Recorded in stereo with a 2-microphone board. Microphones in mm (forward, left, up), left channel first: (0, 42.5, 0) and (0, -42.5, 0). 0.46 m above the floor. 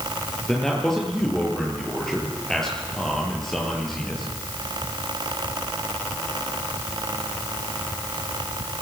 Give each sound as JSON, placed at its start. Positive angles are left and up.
{"t": 0.5, "sound": "a man speaking", "side_deg": 5, "distance_m": 8.5}